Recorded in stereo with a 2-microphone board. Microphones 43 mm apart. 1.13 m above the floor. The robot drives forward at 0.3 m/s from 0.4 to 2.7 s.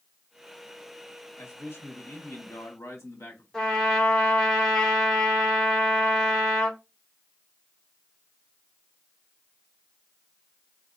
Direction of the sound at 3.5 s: 5° left (ahead or behind).